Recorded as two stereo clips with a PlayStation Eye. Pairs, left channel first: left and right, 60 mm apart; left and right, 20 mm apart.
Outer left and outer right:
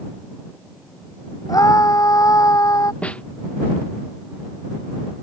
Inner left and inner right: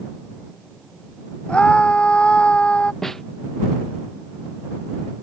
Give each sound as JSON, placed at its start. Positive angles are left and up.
{"t": 1.5, "sound": "a scream", "side_deg": 80}
{"t": 3.0, "sound": "a snare drum", "side_deg": 20}